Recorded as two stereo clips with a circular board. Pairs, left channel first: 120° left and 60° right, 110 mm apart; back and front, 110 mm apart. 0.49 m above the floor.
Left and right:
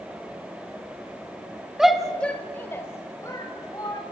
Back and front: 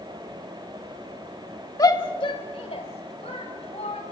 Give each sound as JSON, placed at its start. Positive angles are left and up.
{"t": 1.8, "sound": "a shout", "azimuth_deg": -140, "distance_m": 1.2}